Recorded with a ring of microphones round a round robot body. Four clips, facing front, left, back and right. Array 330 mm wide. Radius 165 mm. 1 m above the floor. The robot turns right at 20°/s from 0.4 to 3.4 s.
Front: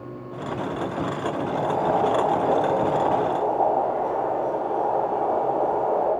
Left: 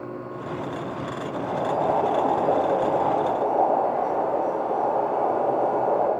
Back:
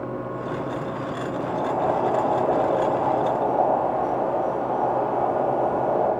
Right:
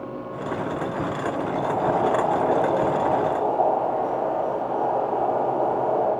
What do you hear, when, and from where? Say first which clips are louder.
1.3 s boiling: left 2 dB, back 1 dB; 100° left, 4 m; by 6.1 s 145° left, 4 m